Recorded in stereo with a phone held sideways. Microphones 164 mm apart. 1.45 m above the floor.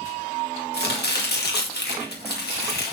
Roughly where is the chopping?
Left.